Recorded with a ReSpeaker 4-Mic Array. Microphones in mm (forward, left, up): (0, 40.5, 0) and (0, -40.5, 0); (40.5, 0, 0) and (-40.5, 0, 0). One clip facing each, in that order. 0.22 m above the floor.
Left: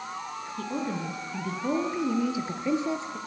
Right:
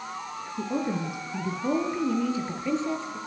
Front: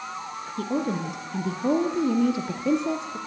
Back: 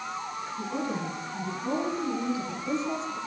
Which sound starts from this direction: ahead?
A woman speaking, at 0.6 s.